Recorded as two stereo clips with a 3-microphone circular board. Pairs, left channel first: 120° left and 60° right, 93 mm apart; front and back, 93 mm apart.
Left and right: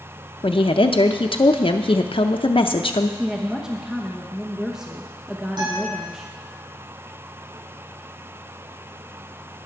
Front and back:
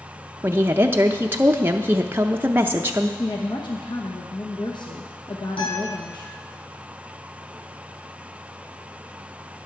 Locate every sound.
0.4 s a woman speaking: 115° left, 0.5 m
3.2 s a woman speaking: 25° left, 1.1 m
5.6 s a guitar: 20° right, 7 m